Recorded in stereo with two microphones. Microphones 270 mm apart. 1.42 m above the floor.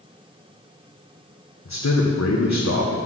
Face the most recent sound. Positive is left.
turn(degrees=80)